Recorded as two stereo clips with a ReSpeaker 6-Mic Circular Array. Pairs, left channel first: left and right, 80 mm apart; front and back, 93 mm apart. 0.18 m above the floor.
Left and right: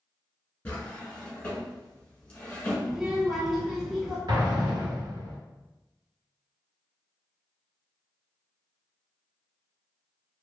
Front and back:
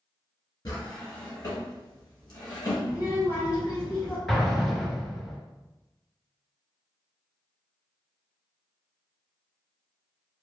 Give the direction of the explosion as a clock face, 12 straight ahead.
3 o'clock.